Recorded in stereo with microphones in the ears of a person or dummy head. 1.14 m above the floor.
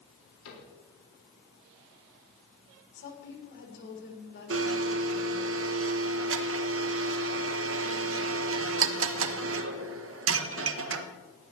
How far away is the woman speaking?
About 3.5 m.